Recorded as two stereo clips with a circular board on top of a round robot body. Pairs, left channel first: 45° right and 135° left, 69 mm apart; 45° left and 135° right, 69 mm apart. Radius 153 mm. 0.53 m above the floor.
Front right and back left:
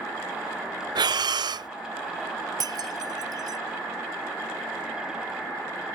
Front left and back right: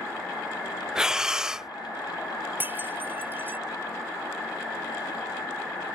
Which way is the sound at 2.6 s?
165° left.